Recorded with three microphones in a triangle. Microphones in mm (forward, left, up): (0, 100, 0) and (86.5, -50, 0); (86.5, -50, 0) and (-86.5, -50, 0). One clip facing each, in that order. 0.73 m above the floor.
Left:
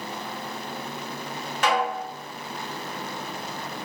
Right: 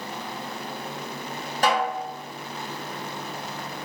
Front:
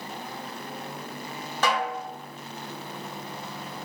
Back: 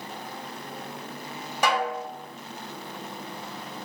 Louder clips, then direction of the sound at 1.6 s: Right 1 dB, back 1 dB; 105° right.